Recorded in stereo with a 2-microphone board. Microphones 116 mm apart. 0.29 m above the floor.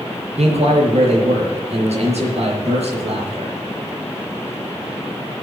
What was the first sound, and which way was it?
A man speaking, 80° right.